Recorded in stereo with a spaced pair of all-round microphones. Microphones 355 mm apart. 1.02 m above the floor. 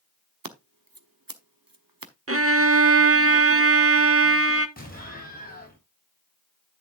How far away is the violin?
About 0.8 m.